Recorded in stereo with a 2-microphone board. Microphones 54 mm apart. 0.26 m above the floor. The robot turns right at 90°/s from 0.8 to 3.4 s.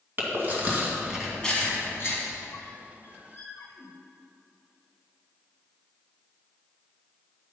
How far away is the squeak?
About 1.7 m.